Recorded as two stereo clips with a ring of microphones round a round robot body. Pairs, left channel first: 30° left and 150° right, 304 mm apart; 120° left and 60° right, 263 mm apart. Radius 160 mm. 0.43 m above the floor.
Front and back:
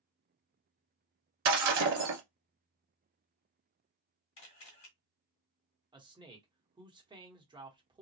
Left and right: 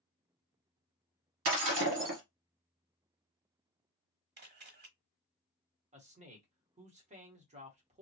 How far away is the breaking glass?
About 1.3 m.